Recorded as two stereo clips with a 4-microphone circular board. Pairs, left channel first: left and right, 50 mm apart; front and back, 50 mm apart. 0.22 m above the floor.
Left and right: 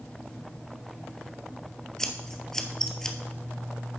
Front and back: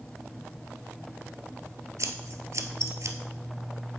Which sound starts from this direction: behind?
Scissors, at 2.0 s.